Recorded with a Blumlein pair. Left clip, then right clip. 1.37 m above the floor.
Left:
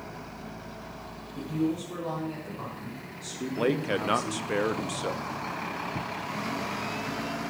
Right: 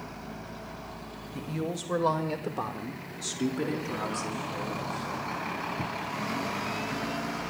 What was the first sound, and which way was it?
A woman speaking, 70° right.